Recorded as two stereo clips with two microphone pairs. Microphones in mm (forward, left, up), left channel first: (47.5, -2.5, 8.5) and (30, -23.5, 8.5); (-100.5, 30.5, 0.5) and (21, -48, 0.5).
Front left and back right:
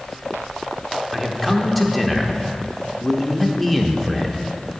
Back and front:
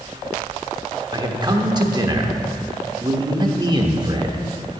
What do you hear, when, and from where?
1.1 s a man speaking: 35° right, 1.0 m